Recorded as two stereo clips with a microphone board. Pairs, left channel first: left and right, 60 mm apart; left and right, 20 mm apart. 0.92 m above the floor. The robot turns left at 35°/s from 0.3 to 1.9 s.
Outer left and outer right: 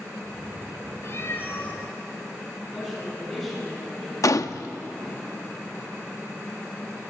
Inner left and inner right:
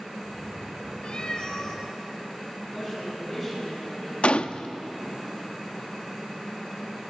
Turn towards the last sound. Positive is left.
turn(degrees=70)  # may be behind; listen again after turning